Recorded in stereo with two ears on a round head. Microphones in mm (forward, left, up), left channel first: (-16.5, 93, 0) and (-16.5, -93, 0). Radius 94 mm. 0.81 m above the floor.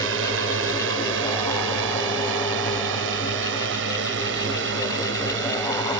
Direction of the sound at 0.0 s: 65° right (ahead or behind).